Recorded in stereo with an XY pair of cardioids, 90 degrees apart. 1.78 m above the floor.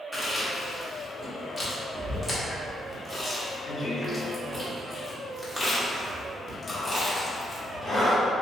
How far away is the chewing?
About 1.1 m.